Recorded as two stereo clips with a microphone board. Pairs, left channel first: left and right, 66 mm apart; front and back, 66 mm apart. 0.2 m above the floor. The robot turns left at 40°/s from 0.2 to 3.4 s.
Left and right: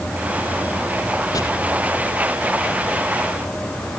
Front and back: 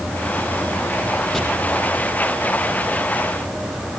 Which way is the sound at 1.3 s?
85° left.